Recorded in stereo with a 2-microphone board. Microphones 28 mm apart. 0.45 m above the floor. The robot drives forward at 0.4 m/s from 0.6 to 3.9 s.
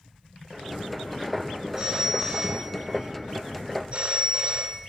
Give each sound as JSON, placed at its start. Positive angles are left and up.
{"t": 1.8, "sound": "a phone ringing", "side_deg": -25, "distance_m": 1.6}